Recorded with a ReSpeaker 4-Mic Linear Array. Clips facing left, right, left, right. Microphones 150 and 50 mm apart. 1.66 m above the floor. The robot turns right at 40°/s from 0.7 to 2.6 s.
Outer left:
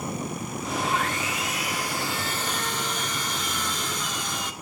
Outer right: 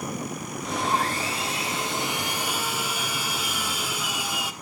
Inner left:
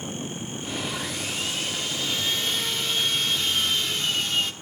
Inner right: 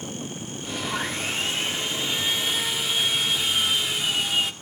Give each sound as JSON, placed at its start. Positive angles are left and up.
{"t": 0.8, "sound": "sawing", "azimuth_deg": -85, "distance_m": 1.4}